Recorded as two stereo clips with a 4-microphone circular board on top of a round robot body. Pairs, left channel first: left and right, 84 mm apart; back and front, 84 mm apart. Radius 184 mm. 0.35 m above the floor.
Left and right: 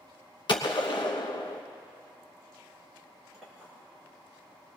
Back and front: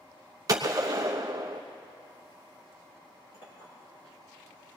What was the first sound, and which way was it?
A gunshot, 50° left.